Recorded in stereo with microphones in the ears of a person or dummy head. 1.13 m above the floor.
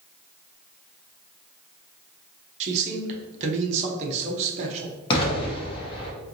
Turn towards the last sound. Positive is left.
turn(degrees=30)  # may be behind; listen again after turning